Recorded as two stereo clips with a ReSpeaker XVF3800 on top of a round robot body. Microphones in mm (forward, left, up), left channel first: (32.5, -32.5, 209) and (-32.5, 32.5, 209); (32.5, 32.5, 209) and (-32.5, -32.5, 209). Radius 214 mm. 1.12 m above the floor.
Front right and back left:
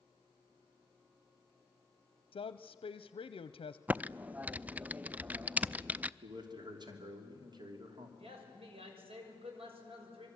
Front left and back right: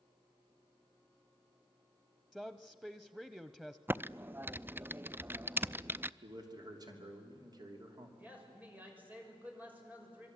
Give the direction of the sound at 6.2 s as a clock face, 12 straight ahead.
6 o'clock.